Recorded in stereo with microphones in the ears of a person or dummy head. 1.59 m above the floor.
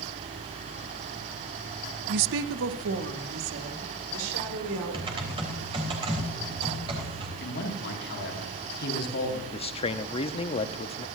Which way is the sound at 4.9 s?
25° right (ahead or behind).